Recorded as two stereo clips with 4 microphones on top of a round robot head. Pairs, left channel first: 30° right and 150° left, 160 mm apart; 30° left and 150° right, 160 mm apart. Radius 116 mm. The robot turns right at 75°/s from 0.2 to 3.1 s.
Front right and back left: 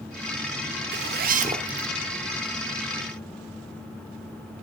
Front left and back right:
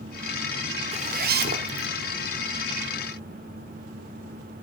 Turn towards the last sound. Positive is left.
turn(degrees=-40)